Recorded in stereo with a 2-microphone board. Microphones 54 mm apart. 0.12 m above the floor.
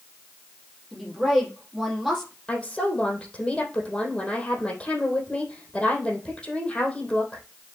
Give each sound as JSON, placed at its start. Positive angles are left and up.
{"t": 0.9, "sound": "a woman speaking", "side_deg": -5, "distance_m": 5.0}
{"t": 2.5, "sound": "a woman speaking", "side_deg": 15, "distance_m": 3.5}